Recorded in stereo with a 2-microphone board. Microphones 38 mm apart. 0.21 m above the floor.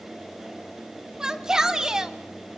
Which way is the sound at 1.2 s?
20° right (ahead or behind).